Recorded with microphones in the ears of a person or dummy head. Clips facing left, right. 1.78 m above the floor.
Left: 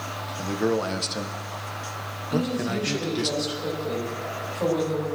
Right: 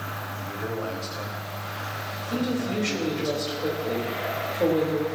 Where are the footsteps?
I don't hear footsteps.